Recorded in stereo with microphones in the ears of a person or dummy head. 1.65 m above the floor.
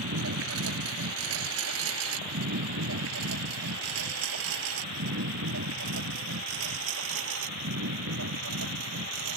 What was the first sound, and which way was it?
A lawn mower, 80° right.